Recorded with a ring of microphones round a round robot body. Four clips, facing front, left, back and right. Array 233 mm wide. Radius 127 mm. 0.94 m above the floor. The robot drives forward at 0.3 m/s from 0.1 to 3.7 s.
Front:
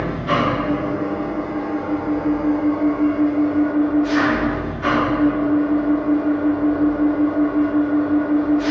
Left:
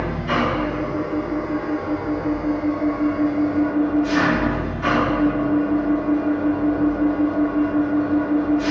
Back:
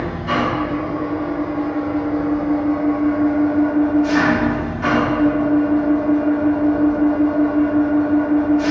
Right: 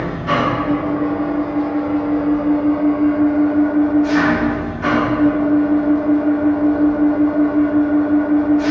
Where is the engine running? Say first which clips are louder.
Right 3 dB, front 1 dB; 70° right, 0.9 m; by 8.7 s 150° right, 1.2 m.